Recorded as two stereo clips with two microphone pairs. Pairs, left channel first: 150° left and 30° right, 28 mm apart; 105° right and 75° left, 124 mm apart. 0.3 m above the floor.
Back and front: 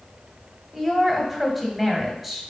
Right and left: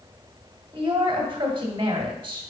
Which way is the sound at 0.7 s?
55° left.